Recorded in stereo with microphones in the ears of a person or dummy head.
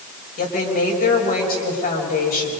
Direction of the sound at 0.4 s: 40° left (ahead or behind).